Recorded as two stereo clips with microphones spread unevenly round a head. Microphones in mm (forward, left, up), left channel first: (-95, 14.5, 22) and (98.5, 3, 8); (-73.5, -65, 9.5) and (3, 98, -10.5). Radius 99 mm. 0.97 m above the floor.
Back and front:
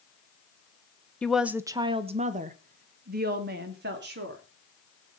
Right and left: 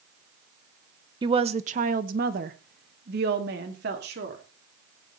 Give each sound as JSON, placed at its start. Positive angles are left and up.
{"t": 1.2, "sound": "a woman speaking", "azimuth_deg": 90, "distance_m": 0.8}